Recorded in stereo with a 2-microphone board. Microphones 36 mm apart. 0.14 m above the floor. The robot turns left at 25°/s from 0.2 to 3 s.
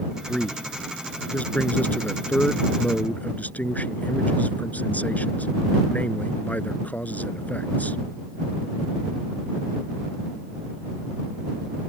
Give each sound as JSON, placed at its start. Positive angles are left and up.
{"t": 0.3, "sound": "a man speaking", "azimuth_deg": 145}